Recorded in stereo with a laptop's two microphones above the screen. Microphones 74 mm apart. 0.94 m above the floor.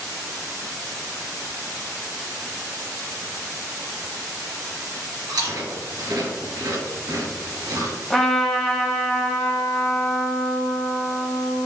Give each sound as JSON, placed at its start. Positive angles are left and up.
{"t": 5.3, "sound": "chewing", "side_deg": -70, "distance_m": 1.9}
{"t": 8.1, "sound": "a trumpet", "side_deg": 5, "distance_m": 0.9}